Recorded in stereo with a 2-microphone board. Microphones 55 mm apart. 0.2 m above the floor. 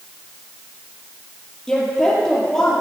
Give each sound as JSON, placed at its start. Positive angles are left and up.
{"t": 1.7, "sound": "a woman speaking", "side_deg": 10, "distance_m": 4.5}